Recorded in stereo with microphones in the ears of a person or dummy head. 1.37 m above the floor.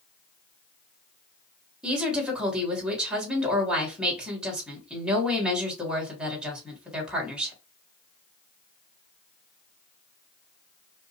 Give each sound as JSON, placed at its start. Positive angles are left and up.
{"t": 1.8, "sound": "a woman speaking", "side_deg": -5, "distance_m": 2.5}